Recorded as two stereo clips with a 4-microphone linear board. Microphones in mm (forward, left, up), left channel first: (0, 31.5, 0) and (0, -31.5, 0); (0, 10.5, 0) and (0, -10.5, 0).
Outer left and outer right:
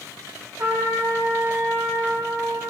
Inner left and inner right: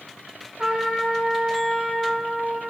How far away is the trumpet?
About 8 m.